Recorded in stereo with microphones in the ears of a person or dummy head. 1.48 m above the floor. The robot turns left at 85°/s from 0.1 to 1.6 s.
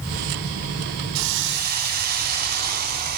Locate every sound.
1.1 s a hiss: 95° right, 0.8 m; by 3.2 s 135° right, 0.8 m